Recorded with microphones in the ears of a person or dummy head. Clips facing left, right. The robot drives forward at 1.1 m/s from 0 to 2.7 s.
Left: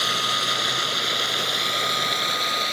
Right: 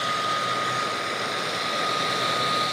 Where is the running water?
55° left (ahead or behind); by 2.7 s 40° left (ahead or behind).